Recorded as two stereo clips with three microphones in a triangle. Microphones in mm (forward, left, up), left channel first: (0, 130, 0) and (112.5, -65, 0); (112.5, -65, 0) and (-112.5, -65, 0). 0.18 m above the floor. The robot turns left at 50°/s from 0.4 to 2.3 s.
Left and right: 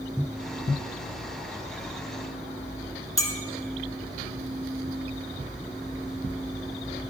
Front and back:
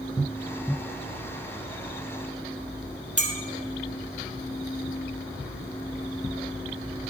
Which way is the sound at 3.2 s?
170° right.